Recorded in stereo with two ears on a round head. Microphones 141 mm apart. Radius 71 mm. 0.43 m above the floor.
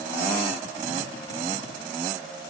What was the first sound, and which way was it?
Only background noise.